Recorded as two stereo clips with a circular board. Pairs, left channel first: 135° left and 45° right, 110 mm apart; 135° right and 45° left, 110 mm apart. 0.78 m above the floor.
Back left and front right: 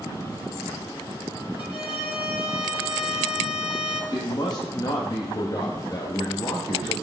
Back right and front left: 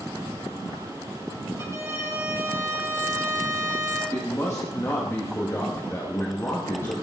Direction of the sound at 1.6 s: 110° left.